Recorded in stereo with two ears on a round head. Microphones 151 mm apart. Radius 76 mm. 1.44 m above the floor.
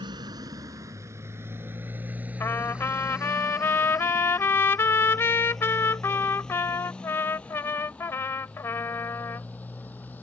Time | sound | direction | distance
0.0 | a motorcycle | 25° right (ahead or behind) | ?
2.4 | a trumpet | 15° left (ahead or behind) | ?